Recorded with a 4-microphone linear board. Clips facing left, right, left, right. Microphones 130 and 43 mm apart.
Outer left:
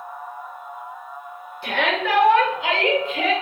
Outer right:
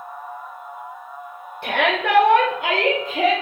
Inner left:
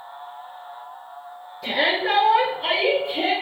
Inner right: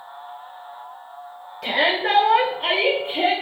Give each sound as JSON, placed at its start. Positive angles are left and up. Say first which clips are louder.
{"t": 1.6, "sound": "a shout", "louder": "outer right 2 dB, inner right 1 dB", "side_deg": -60, "distance_m": 1.0}